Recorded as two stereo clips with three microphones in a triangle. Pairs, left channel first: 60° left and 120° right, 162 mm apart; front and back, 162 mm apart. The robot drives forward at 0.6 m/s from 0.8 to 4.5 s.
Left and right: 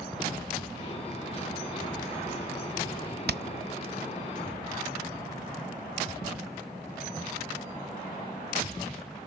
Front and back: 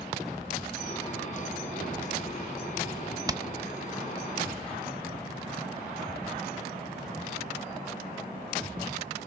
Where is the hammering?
115° right, 0.5 m; by 3.4 s 120° right, 0.5 m.